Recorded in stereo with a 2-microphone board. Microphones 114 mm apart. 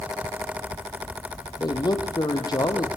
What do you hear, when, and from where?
1.6 s a man speaking: 35° left (ahead or behind), 4.5 m